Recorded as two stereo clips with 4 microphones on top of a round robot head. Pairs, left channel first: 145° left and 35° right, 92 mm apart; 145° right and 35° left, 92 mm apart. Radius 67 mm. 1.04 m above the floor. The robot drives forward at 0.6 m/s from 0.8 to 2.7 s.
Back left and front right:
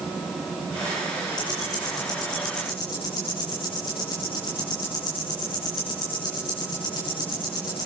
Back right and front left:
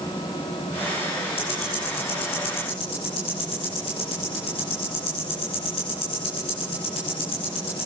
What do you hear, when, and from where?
1.4 s ticking: 170° right, 9 m